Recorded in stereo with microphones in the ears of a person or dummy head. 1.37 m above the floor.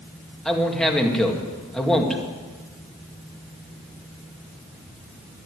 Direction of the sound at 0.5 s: Centre (ahead or behind).